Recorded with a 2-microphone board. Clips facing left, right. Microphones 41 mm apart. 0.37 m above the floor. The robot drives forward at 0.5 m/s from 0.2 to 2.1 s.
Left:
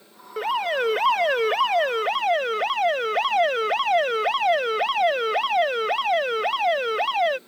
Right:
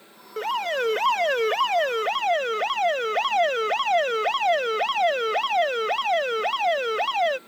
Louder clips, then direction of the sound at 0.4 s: Left 2 dB; 10° left (ahead or behind).